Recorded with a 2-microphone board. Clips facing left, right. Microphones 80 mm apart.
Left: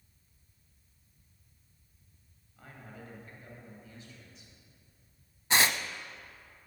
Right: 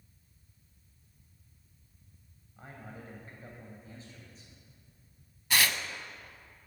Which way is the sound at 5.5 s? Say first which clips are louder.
Left 2 dB; 25° left (ahead or behind).